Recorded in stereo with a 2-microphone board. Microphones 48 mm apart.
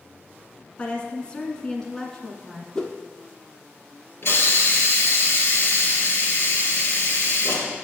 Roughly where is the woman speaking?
Left.